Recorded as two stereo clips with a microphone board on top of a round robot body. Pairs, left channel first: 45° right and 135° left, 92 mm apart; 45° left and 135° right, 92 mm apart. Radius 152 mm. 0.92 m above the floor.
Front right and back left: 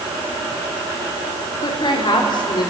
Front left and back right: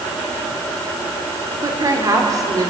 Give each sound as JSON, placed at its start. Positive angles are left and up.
{"t": 1.6, "sound": "a woman speaking", "azimuth_deg": -80, "distance_m": 4.0}